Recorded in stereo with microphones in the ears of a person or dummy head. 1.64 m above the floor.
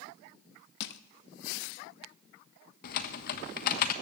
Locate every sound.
0.8 s crushing: 70° left (ahead or behind), 0.7 m
2.8 s typing on a keyboard: 55° left (ahead or behind), 1.2 m